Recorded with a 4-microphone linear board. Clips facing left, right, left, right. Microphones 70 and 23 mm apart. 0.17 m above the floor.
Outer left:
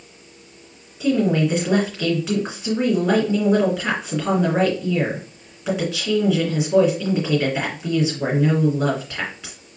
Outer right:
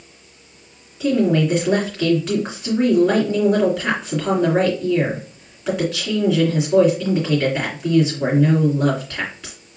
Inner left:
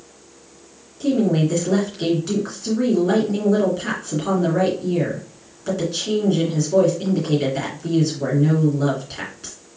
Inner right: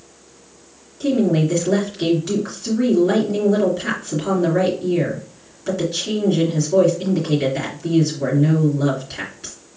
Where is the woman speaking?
5° left (ahead or behind), 2.5 m.